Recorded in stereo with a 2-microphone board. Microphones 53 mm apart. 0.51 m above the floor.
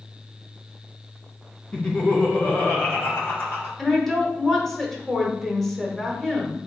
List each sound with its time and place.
1.7 s laughter: 20° left (ahead or behind), 0.8 m; by 3.7 s 55° left (ahead or behind), 1.8 m
3.8 s a woman speaking: 5° left (ahead or behind), 1.1 m